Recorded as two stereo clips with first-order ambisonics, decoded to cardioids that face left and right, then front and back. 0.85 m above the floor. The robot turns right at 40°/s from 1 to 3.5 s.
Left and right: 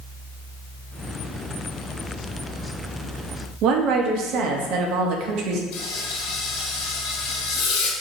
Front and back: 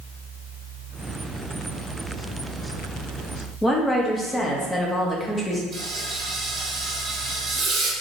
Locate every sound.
3.6 s a woman speaking: 80° right, 0.8 m
5.7 s frying: 115° left, 1.5 m